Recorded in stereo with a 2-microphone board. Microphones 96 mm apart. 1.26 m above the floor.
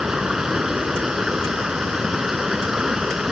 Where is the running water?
5° right (ahead or behind).